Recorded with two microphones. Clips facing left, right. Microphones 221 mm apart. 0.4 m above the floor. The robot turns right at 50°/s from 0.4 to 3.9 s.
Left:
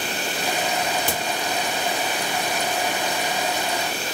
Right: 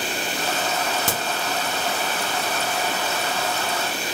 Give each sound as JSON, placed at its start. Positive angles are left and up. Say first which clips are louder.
{"t": 1.1, "sound": "a crack", "louder": "even", "side_deg": -80, "distance_m": 0.8}